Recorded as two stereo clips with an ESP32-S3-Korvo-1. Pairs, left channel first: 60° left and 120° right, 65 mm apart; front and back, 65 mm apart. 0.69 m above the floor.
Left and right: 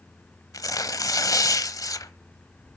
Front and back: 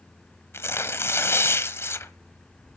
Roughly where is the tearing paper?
Ahead left.